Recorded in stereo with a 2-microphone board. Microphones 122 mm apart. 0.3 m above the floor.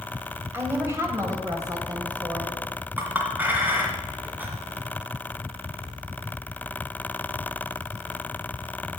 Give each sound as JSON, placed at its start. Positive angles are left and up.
{"t": 0.5, "sound": "a woman speaking", "side_deg": -20, "distance_m": 1.9}
{"t": 3.0, "sound": "a clink", "side_deg": -15, "distance_m": 2.0}